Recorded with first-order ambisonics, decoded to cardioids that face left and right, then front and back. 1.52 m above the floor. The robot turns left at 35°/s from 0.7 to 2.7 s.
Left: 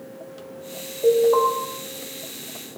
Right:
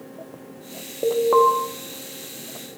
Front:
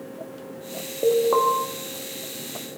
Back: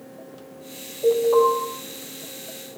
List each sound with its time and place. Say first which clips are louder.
1.0 s an alarm: even, back 2 dB; 45° right, 2.5 m; by 1.5 s 65° right, 2.5 m